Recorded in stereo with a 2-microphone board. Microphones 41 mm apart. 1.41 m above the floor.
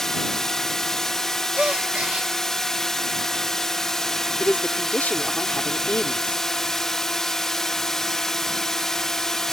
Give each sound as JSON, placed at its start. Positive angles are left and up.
{"t": 0.0, "sound": "a drone", "side_deg": 10}
{"t": 1.6, "sound": "a gasp", "side_deg": -30}
{"t": 4.4, "sound": "a man speaking", "side_deg": 45}